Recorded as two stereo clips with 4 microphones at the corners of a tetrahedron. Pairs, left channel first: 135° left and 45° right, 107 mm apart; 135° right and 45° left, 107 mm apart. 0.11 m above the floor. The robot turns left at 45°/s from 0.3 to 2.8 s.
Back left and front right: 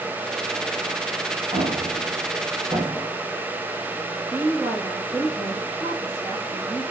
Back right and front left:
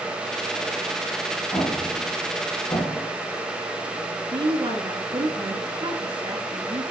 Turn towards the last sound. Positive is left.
turn(degrees=15)